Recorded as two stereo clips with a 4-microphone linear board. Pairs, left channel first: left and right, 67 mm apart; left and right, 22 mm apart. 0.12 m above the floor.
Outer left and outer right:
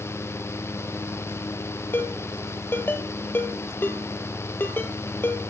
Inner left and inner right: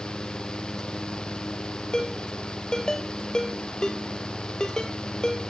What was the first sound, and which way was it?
A ringtone, 35° left (ahead or behind).